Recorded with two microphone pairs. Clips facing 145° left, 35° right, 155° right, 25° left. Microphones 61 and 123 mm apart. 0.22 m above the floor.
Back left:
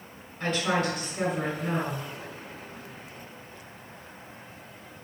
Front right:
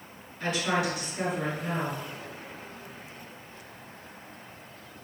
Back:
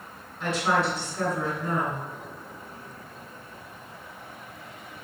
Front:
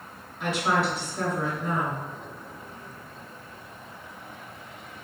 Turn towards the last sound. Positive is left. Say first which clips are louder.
# back left 1 dB, even
turn(degrees=110)